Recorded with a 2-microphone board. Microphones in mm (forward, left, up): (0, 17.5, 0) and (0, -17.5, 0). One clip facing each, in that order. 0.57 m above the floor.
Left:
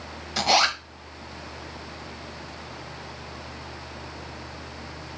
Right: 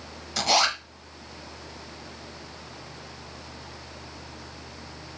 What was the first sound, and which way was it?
A zipper, 10° left (ahead or behind).